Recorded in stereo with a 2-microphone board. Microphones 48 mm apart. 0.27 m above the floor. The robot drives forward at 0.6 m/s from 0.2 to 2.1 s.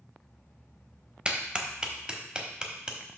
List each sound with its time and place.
1.2 s a clap: 20° right (ahead or behind), 0.7 m; by 3.0 s 15° right (ahead or behind), 0.9 m